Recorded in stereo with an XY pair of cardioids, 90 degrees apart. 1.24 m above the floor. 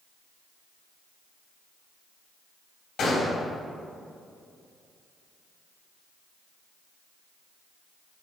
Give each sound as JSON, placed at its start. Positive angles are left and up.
{"t": 3.0, "sound": "a gunshot", "azimuth_deg": 65, "distance_m": 2.5}